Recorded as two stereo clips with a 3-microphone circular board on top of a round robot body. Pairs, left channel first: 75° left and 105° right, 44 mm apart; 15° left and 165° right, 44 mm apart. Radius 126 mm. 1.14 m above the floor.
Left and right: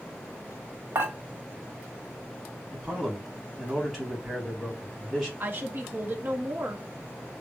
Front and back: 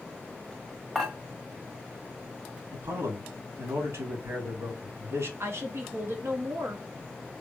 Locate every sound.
0.9 s dishes clattering: 80° right, 1.4 m
2.7 s a man speaking: 175° left, 3 m
5.4 s a woman speaking: 145° right, 1.2 m